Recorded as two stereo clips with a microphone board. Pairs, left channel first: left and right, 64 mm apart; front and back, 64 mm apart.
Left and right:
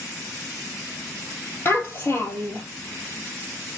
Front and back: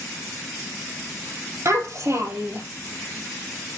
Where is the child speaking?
145° left, 2.5 m.